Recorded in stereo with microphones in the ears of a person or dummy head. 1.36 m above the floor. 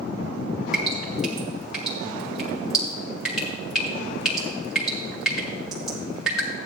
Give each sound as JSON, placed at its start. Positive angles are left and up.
{"t": 0.7, "sound": "dripping", "side_deg": -5, "distance_m": 2.0}